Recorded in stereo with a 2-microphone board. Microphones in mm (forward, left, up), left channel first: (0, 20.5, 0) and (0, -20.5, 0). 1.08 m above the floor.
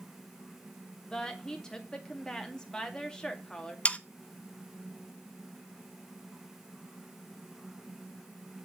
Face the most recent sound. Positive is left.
turn(degrees=35)  # may be behind; listen again after turning